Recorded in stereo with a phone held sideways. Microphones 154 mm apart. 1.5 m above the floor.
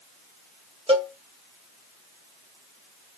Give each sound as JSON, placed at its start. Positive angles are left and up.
{"t": 0.9, "sound": "a cowbell", "side_deg": -40, "distance_m": 2.0}